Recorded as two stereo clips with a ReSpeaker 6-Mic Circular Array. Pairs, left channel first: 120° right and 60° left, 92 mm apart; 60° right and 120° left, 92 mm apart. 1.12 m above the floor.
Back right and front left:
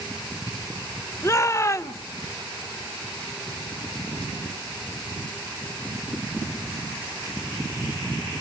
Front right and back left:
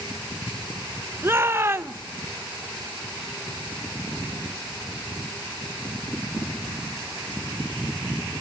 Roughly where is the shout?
Behind.